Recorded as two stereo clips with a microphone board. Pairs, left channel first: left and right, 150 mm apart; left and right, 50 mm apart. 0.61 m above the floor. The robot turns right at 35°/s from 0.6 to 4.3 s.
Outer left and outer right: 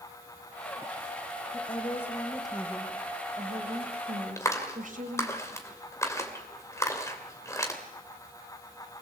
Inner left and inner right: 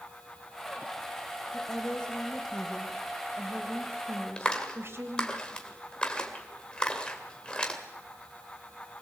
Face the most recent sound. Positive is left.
turn(degrees=20)  # may be behind; listen again after turning